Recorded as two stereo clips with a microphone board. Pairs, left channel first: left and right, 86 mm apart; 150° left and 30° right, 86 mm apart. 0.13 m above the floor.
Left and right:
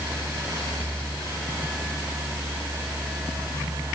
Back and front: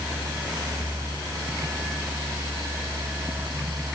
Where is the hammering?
I don't hear hammering.